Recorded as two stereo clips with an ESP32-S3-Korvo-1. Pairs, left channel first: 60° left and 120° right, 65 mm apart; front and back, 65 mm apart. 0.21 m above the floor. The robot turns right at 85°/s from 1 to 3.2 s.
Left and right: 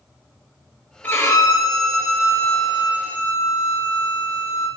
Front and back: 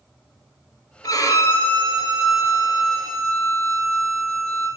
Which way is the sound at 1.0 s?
5° left.